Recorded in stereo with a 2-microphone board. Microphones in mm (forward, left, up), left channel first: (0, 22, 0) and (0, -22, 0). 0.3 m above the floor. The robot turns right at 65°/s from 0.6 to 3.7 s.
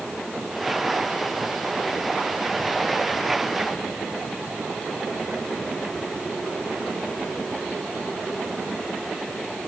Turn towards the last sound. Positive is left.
No sound to turn to.